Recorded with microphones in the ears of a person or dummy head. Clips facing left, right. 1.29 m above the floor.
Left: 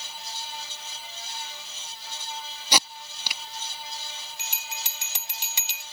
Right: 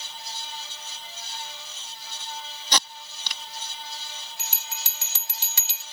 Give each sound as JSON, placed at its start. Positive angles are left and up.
{"t": 2.7, "sound": "tape being pulled", "side_deg": 10}
{"t": 4.4, "sound": "a bell", "side_deg": 20}